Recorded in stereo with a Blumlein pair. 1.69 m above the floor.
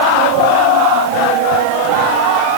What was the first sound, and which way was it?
Only background noise.